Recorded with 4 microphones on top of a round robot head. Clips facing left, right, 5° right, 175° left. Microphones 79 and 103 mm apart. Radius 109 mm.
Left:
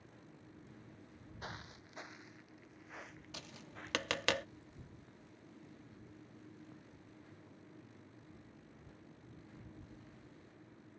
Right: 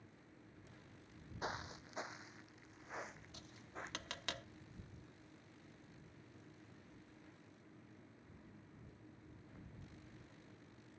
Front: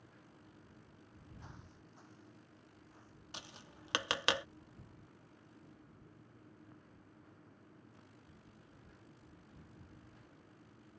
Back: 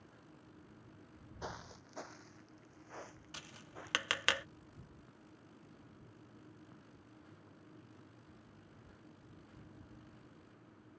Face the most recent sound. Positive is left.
turn(degrees=65)